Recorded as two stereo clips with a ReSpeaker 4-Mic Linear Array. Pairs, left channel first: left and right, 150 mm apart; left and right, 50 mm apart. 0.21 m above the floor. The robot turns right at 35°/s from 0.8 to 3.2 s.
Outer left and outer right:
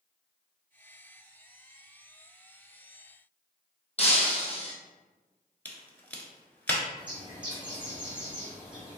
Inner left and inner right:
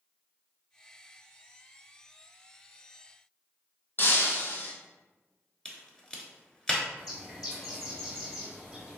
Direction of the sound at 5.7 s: 10° left (ahead or behind).